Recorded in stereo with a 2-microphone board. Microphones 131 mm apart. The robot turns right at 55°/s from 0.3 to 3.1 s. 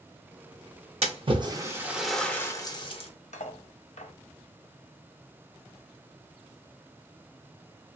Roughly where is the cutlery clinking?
Left.